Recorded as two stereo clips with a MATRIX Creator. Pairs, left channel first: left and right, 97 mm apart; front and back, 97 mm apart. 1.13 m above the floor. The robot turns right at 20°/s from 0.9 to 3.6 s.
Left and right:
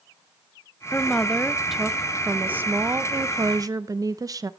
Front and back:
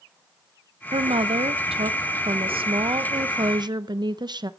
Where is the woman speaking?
165° left, 0.6 m; by 4.5 s 140° right, 0.6 m.